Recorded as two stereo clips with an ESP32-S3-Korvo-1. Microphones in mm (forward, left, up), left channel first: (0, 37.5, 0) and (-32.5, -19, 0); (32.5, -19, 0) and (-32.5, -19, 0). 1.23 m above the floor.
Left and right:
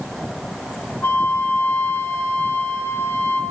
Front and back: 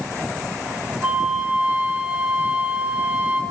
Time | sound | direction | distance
1.0 | a flute | 110° left | 1.5 m